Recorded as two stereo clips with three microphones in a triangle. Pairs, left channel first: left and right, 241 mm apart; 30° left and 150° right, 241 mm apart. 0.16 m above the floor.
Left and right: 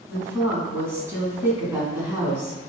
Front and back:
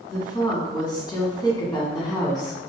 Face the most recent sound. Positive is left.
turn(degrees=-20)